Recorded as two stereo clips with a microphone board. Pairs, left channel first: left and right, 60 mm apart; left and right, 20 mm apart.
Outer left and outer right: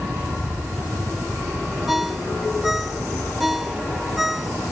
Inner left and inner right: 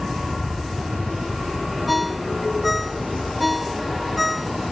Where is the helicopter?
65° right (ahead or behind); by 4.7 s 75° right (ahead or behind).